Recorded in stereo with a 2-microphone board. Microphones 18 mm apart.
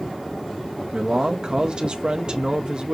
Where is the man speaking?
50° right (ahead or behind), 0.5 m.